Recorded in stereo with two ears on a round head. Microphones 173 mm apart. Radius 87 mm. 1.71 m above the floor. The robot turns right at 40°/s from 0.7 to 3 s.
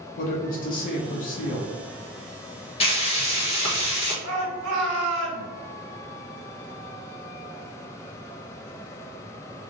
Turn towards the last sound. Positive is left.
turn(degrees=-75)  # may be behind; listen again after turning